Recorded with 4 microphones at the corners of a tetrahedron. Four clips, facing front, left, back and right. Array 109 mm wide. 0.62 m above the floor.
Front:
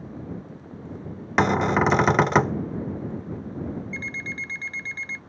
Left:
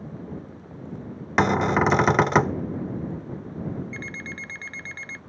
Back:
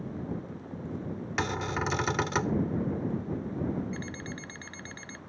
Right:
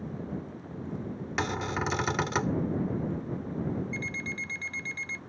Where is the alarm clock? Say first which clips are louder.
Even, front 5 dB; 110° left.